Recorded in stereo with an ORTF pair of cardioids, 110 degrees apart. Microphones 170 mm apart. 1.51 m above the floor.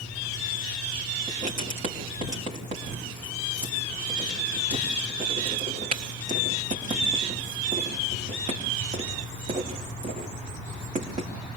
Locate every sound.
1.3 s writing: 45° right, 3.5 m